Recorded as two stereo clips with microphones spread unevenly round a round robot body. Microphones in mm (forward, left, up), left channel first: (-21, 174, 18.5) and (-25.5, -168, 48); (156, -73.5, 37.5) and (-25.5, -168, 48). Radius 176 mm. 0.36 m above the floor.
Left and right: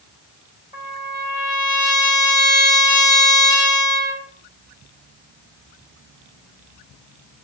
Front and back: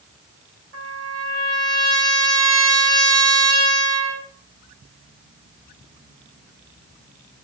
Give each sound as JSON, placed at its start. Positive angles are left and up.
{"t": 0.7, "sound": "a trumpet", "azimuth_deg": 160, "distance_m": 2.5}